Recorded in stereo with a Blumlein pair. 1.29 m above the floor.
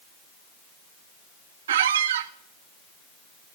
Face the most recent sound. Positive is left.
turn(degrees=-60)